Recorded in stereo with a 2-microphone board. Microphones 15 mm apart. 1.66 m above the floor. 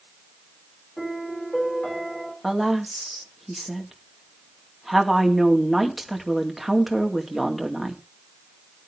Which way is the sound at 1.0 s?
50° left (ahead or behind).